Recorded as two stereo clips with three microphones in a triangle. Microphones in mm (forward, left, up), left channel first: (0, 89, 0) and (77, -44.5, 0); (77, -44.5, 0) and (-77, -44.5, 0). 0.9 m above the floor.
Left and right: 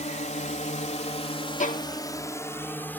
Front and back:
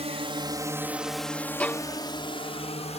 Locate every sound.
0.0 s a drone: 145° left; by 3.0 s 40° left
1.6 s a violin: 80° left